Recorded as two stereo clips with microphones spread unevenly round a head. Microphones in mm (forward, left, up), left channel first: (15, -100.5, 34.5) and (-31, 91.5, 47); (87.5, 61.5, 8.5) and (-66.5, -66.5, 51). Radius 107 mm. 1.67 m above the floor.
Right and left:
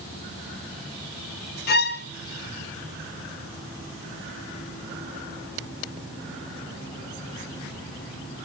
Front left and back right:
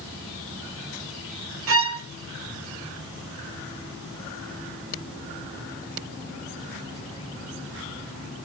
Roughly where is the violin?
Behind right.